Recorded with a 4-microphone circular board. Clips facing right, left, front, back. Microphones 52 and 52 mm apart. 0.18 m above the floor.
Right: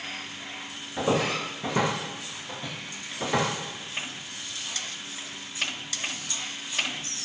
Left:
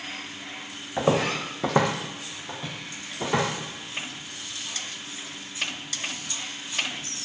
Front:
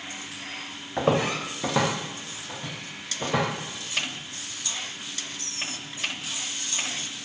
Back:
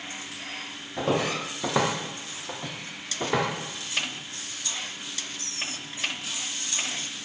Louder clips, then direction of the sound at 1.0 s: Left 2 dB, front 2 dB; 45° left.